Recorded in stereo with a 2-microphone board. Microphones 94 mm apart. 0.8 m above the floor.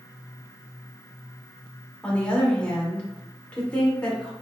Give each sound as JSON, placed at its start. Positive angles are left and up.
{"t": 2.0, "sound": "a woman speaking", "side_deg": 15, "distance_m": 1.8}